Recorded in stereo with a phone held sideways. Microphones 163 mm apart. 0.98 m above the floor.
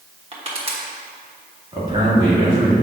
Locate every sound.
0.3 s crushing: 40° right (ahead or behind), 1.2 m
1.7 s a man speaking: 30° right (ahead or behind), 2 m